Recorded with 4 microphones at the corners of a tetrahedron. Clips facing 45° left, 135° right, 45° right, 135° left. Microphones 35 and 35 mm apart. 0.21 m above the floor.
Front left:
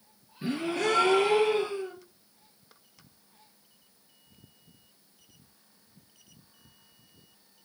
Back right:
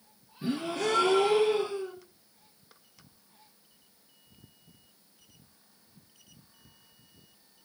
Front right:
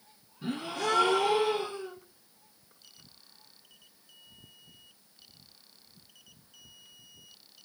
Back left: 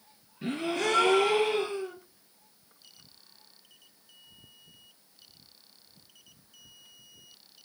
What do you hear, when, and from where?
0.4 s a gasp: 95° left, 3.5 m